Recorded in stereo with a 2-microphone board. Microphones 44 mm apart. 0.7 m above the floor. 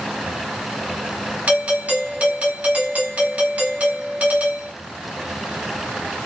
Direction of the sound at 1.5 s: 35° right (ahead or behind).